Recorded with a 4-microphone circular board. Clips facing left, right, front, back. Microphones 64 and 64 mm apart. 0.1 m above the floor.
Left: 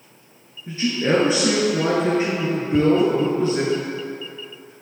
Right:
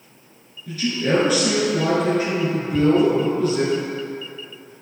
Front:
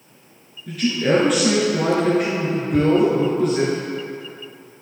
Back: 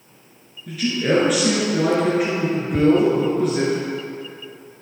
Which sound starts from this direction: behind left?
Ticking, at 2.7 s.